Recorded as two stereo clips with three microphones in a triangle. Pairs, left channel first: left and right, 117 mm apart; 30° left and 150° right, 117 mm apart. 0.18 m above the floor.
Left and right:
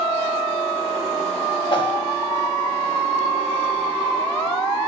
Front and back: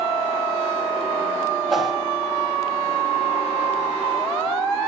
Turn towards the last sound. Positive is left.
turn(degrees=125)